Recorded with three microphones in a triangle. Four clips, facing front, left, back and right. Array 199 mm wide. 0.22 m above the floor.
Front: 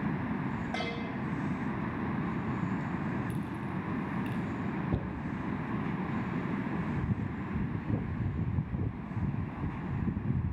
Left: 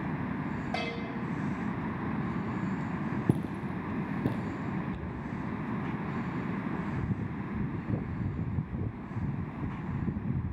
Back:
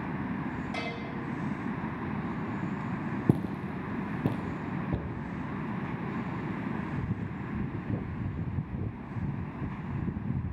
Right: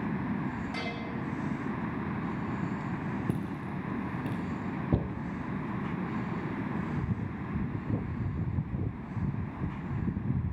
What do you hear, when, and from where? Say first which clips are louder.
0.7 s a bell: left 2 dB, even; 70° left, 9.5 m
3.3 s footsteps: left 3 dB, back 7 dB; 155° left, 1.2 m; by 4.6 s 145° left, 2.0 m
4.9 s a cupboard door: right 8 dB, even; 90° right, 2.0 m